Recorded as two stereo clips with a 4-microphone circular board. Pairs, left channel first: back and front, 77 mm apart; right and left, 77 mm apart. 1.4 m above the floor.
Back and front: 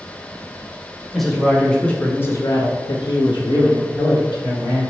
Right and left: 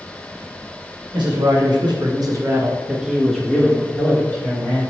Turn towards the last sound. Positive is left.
turn(degrees=-140)